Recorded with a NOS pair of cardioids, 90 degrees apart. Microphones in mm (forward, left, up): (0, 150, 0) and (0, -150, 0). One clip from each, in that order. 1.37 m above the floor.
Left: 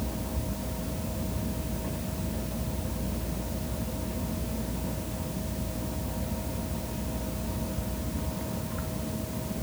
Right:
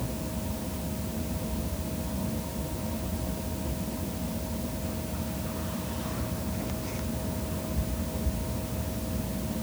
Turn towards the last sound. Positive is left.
No sound to turn to.